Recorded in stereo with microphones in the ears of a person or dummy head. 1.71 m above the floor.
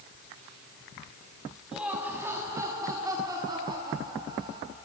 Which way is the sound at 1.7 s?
5° right (ahead or behind).